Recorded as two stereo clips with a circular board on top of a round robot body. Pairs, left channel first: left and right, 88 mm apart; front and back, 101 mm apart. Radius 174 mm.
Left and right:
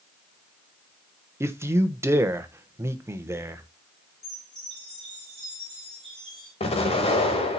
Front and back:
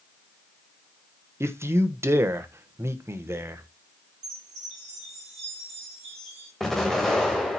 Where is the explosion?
90° left, 1.0 m.